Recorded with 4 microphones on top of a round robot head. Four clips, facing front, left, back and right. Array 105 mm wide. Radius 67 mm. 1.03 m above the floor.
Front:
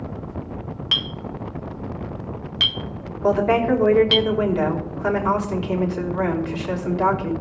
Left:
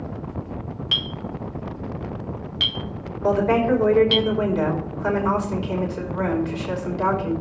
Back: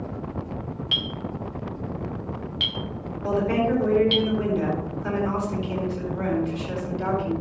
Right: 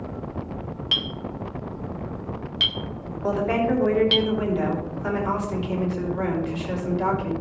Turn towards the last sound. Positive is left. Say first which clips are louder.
# left 4 dB, front 5 dB
turn(degrees=15)